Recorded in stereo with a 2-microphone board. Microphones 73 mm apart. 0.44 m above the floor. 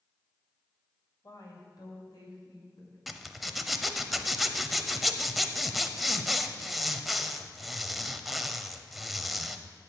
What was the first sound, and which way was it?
A woman speaking, 55° left (ahead or behind).